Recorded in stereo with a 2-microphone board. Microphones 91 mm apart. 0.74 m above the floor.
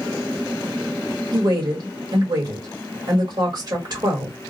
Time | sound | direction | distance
1.3 | a woman speaking | 45° right (ahead or behind) | 1.5 m